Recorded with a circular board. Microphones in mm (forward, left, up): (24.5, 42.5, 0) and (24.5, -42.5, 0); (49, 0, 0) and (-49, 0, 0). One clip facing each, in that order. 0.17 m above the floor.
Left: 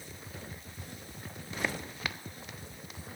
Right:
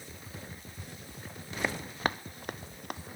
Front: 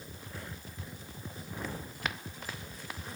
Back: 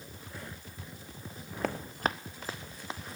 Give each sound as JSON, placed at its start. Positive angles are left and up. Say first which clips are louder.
{"t": 1.6, "sound": "running footsteps", "louder": "right 5 dB, back 8 dB", "azimuth_deg": -170, "distance_m": 0.5}